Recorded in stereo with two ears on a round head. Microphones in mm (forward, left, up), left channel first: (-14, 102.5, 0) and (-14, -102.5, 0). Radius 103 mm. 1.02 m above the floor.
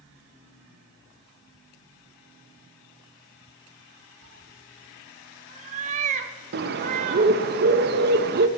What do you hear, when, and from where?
4.2 s a cat meowing: 30° right (ahead or behind), 0.9 m
6.5 s a bird: 45° right (ahead or behind), 0.6 m